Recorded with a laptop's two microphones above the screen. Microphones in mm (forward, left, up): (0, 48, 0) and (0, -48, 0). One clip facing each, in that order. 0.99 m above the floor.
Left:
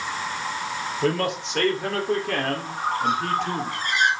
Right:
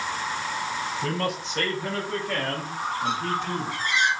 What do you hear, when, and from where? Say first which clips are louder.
1.0 s a man speaking: left 7 dB; 75° left (ahead or behind), 4 m; by 3.7 s 65° left (ahead or behind), 4 m
2.7 s a bird: left 5 dB; 55° left (ahead or behind), 4.5 m